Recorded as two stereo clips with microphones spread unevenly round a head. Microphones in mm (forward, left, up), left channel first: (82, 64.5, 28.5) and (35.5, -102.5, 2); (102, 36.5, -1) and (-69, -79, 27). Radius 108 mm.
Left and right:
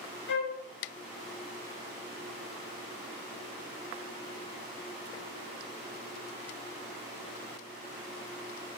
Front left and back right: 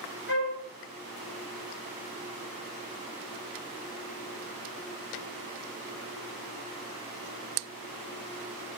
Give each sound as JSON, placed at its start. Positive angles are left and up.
{"t": 0.3, "sound": "a flute", "azimuth_deg": 80, "distance_m": 0.7}